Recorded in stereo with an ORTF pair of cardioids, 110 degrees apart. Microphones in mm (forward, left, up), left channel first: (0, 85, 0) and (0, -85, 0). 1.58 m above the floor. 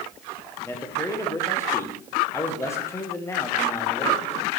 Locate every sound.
0.6 s a man speaking: 15° left, 1.5 m